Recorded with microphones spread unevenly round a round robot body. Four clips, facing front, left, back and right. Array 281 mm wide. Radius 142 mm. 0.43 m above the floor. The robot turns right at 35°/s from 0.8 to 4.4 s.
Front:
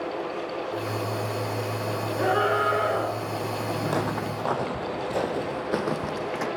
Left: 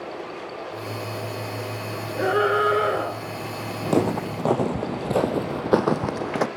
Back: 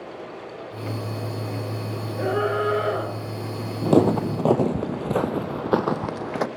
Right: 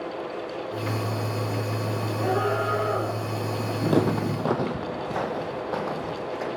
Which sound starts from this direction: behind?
Footsteps, at 3.9 s.